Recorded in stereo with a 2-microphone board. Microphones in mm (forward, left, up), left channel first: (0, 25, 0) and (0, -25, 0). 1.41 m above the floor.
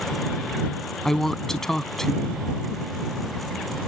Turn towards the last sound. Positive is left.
turn(degrees=5)  # may be behind; listen again after turning